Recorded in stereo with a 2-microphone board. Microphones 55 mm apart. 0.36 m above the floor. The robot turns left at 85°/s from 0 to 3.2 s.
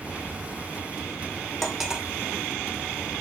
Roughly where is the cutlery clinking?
Ahead.